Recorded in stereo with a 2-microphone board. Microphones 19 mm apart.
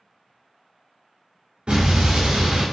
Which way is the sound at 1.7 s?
70° right (ahead or behind).